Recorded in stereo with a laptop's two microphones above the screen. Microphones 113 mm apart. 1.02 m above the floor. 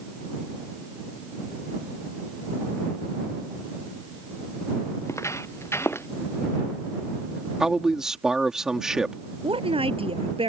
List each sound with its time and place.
5.0 s footsteps: 25° left (ahead or behind); by 6.1 s 20° left (ahead or behind)
7.6 s a man speaking: 5° right (ahead or behind)
9.4 s a woman speaking: 55° right (ahead or behind)